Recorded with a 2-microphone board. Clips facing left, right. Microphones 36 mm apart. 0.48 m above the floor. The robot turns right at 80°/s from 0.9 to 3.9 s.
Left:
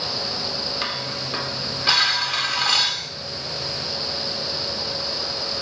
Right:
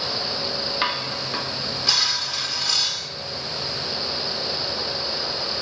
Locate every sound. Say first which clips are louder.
0.8 s dishes clattering: right 3 dB; 35° right, 0.8 m; by 3.1 s 145° left, 0.8 m